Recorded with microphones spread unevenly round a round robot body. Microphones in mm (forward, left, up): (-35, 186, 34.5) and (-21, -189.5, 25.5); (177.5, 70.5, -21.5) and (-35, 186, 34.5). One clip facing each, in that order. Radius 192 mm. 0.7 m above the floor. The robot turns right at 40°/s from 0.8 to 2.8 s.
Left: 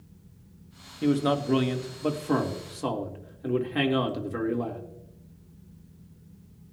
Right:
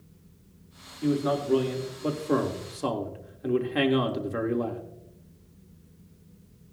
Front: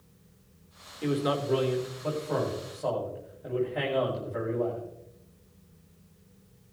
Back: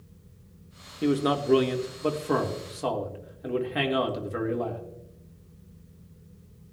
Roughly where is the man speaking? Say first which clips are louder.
Left 2 dB, back 4 dB; left.